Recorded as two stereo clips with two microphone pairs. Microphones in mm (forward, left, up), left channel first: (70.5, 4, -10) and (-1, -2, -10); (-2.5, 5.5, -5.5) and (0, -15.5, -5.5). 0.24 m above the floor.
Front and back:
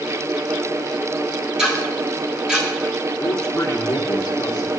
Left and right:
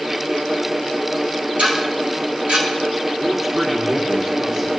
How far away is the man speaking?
About 3 m.